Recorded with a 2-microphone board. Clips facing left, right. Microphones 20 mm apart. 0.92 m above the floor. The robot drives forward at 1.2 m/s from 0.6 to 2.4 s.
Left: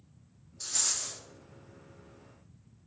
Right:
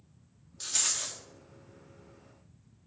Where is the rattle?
35° right (ahead or behind), 1.3 m; by 1.2 s 40° right (ahead or behind), 1.1 m.